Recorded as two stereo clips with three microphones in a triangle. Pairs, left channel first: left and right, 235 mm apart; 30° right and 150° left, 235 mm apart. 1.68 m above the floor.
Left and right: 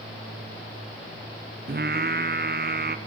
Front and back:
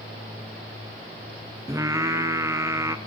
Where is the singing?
135° right, 0.7 m.